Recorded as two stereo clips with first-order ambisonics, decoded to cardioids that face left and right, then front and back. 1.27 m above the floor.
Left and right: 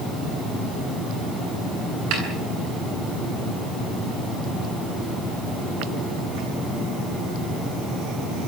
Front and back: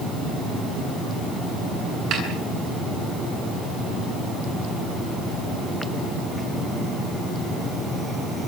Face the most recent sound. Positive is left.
turn(degrees=-130)